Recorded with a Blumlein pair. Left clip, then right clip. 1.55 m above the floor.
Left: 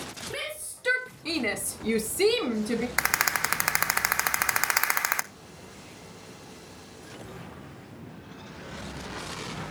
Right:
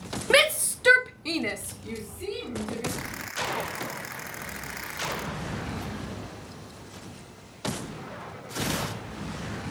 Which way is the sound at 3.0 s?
40° left.